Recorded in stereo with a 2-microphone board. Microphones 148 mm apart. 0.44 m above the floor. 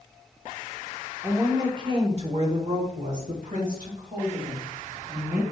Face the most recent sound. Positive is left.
turn(degrees=-75)  # may be behind; listen again after turning